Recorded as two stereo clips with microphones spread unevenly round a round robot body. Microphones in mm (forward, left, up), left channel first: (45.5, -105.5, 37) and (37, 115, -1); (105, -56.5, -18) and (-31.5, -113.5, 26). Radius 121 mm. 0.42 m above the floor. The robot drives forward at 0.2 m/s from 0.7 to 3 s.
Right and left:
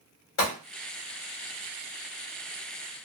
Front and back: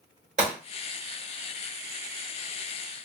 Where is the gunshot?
110° right, 1.7 m.